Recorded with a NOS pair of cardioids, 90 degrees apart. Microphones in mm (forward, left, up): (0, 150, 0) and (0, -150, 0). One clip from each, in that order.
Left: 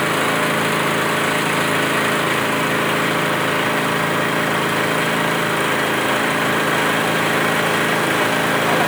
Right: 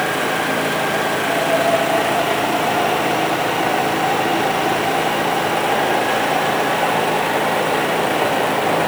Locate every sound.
0.0 s an engine running: 35° left